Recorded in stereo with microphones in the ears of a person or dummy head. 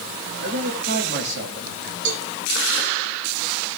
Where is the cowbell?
75° right (ahead or behind), 1.4 m.